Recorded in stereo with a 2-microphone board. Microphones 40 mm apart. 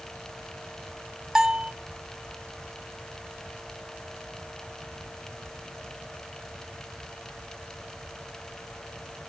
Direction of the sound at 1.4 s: 15° right (ahead or behind).